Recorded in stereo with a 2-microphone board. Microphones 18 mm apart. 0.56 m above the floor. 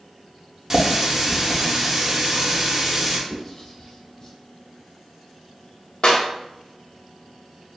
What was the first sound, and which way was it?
A running tap, 30° right (ahead or behind).